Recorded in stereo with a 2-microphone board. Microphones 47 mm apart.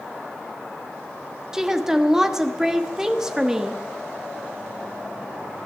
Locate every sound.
1.5 s a woman speaking: 10° right (ahead or behind), 1.2 m